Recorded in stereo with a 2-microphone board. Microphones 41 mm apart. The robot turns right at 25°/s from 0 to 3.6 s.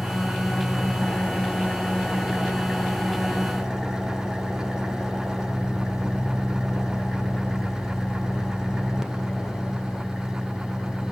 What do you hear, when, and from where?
0.0 s an engine running: 105° left, 2 m; by 11.1 s 165° right, 2 m